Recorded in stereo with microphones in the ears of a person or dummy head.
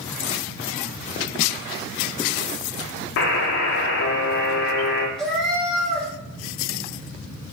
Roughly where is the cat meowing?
Centre.